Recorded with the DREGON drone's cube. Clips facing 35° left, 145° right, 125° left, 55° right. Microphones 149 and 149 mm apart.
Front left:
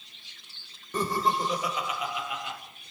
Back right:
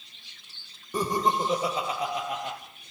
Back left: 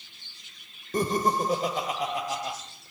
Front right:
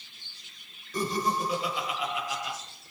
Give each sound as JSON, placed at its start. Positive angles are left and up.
{"t": 0.9, "sound": "laughter", "azimuth_deg": 140, "distance_m": 2.5}